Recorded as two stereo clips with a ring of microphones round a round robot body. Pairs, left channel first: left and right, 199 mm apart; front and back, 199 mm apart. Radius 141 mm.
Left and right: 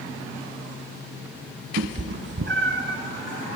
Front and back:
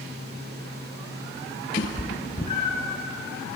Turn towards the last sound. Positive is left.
turn(degrees=-65)